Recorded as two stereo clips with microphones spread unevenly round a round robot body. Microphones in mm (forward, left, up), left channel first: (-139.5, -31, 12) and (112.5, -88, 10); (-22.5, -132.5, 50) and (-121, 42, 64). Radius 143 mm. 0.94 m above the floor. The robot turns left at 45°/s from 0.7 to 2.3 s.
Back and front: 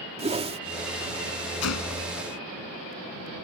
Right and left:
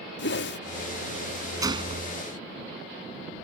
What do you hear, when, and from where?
0.2 s a whoosh: 80° right
1.6 s a gunshot: 170° right; by 2.1 s 170° left